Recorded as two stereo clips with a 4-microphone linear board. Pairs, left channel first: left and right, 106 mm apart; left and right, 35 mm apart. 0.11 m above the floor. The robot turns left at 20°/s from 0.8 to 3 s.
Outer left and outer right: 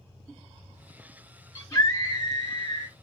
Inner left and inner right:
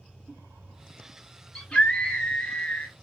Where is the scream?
30° left (ahead or behind), 2.5 m; by 3.0 s 45° left (ahead or behind), 2.5 m.